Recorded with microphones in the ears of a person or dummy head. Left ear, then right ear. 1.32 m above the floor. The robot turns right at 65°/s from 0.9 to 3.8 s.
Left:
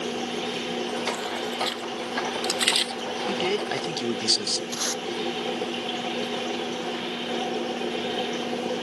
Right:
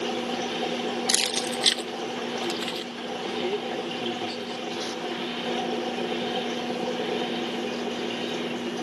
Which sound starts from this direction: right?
Keys jangling, at 1.1 s.